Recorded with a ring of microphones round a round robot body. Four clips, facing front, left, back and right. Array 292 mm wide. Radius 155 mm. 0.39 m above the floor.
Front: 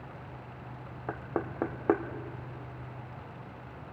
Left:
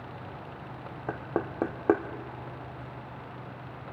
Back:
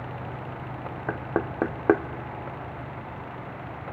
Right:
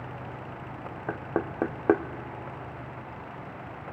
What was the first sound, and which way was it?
Knocking, 170° right.